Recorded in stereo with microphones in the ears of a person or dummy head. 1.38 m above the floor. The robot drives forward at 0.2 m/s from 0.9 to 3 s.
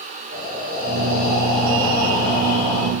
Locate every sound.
0.3 s breathing: 50° right (ahead or behind), 1.7 m; by 2.9 s 60° right (ahead or behind), 1.5 m